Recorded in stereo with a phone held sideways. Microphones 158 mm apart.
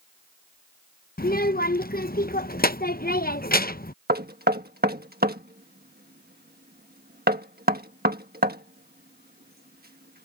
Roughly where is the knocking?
Right.